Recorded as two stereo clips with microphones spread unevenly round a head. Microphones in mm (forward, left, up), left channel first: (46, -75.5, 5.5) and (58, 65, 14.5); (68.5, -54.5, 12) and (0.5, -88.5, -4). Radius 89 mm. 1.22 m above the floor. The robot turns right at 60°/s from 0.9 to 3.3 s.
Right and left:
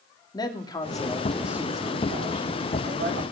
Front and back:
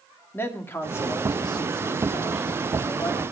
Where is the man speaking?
30° right, 2 m; by 3.2 s 105° left, 2 m.